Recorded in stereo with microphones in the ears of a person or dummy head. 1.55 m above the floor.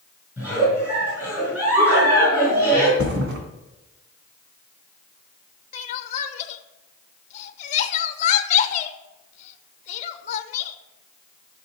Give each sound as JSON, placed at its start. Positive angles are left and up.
{"t": 0.4, "sound": "a giggle", "side_deg": -10, "distance_m": 6.5}
{"t": 3.0, "sound": "a thud", "side_deg": -60, "distance_m": 3.0}
{"t": 5.7, "sound": "crying", "side_deg": 40, "distance_m": 1.0}